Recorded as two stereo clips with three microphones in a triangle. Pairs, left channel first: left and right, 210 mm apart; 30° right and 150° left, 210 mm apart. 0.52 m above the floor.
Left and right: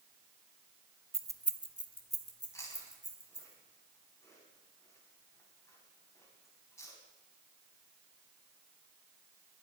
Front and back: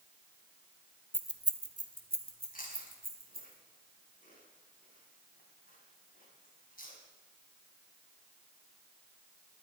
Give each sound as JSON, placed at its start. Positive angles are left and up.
{"t": 1.1, "sound": "keys jangling", "azimuth_deg": -105, "distance_m": 0.7}
{"t": 2.5, "sound": "chewing", "azimuth_deg": 15, "distance_m": 4.5}